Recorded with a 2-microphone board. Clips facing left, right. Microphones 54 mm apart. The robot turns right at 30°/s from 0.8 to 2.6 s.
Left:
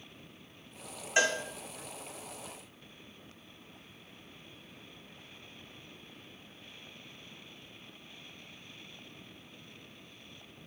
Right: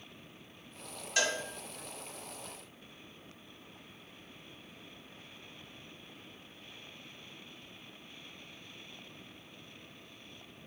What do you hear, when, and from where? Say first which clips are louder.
1.2 s a cowbell: left 4 dB; 30° left (ahead or behind), 1.8 m; by 1.4 s 35° left (ahead or behind), 1.8 m